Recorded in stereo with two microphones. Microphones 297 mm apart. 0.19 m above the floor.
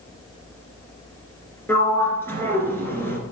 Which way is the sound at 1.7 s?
5° left (ahead or behind).